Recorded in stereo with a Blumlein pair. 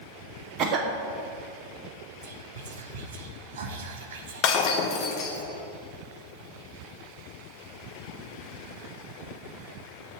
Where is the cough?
35° right, 0.8 m.